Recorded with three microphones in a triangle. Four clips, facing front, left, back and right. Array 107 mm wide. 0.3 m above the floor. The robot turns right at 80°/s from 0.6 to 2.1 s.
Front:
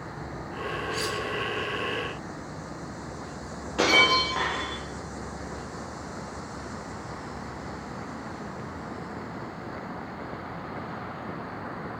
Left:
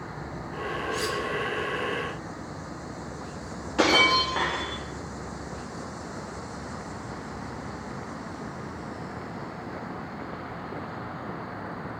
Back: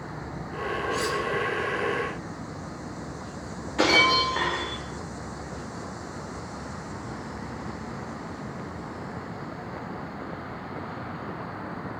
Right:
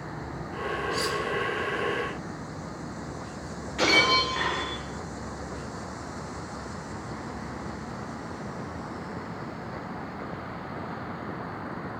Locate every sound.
0.9 s cutlery clinking: 115° right, 3.5 m; by 1.2 s 90° right, 3.5 m
3.8 s breaking glass: 65° left, 7.5 m